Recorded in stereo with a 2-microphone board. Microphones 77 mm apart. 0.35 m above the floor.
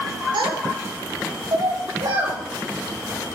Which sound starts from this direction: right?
A child speaking, at 0.3 s.